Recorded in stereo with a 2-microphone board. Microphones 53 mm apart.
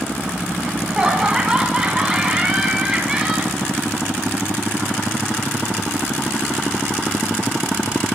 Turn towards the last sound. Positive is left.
turn(degrees=-15)  # may be behind; listen again after turning